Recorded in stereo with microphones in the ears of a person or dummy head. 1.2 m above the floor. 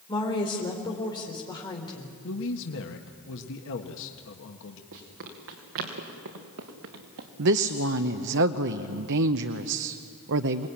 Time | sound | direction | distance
0.1 | a woman speaking | 25° left (ahead or behind) | 4 m
2.2 | a man speaking | 70° left (ahead or behind) | 1.6 m
4.9 | running footsteps | 65° right (ahead or behind) | 6 m
7.4 | a woman speaking | 60° right (ahead or behind) | 0.8 m